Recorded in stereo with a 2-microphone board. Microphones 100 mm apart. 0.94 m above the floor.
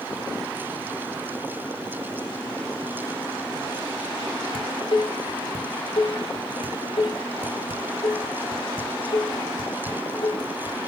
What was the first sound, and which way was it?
Dishes clattering, 60° left (ahead or behind).